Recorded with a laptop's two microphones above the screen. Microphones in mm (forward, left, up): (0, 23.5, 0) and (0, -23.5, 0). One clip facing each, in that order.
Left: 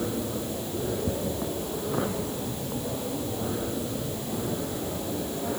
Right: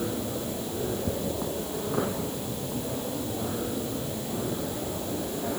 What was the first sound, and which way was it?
Only background noise.